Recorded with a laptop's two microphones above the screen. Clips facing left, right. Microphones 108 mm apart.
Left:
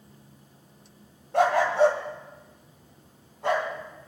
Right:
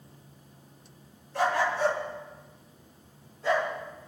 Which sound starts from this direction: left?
A dog barking, at 1.3 s.